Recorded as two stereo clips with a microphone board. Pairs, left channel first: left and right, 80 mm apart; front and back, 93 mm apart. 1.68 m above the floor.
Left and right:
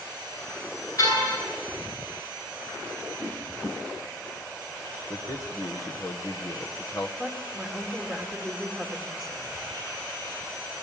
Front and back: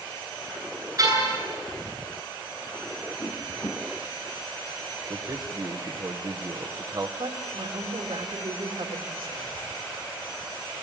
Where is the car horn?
130° left, 9.5 m.